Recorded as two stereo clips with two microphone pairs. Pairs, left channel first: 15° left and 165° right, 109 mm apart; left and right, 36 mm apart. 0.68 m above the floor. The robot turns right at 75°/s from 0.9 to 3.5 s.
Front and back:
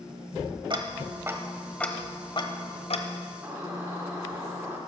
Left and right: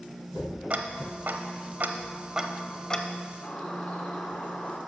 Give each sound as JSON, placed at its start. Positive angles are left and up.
{"t": 0.7, "sound": "ticking", "azimuth_deg": -125, "distance_m": 0.8}
{"t": 3.4, "sound": "a bird", "azimuth_deg": 125, "distance_m": 1.5}